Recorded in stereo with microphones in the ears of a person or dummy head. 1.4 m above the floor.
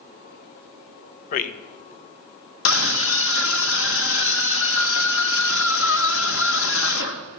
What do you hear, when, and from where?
1.3 s a man speaking: 45° left (ahead or behind), 1.4 m
2.6 s a scream: 75° left (ahead or behind), 1.3 m